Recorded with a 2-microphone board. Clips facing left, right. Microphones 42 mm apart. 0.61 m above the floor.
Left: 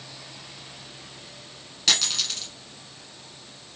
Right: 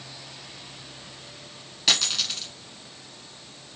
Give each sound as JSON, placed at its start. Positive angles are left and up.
{"t": 1.9, "sound": "a dropped coin", "side_deg": -5, "distance_m": 1.3}